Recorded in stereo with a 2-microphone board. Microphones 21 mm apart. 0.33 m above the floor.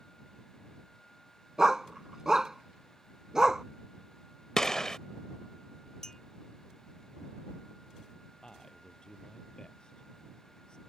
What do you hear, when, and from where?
1.6 s a dog barking: 25° right (ahead or behind)
4.6 s a gunshot: 30° left (ahead or behind)
6.0 s a clink: 30° left (ahead or behind)
8.4 s a man speaking: 35° left (ahead or behind)